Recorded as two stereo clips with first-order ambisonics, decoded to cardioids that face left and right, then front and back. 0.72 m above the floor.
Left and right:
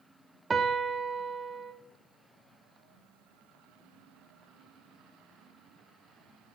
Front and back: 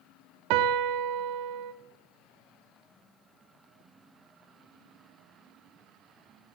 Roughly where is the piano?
Behind.